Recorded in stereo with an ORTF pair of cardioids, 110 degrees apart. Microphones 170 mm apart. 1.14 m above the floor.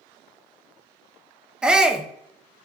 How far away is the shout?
About 0.7 m.